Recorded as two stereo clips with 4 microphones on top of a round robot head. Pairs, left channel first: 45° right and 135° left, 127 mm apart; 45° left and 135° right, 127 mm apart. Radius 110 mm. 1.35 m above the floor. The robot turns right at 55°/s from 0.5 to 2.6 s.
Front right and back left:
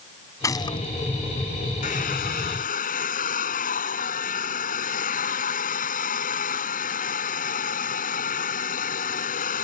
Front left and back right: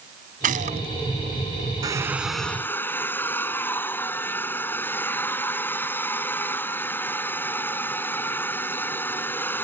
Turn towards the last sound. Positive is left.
turn(degrees=-30)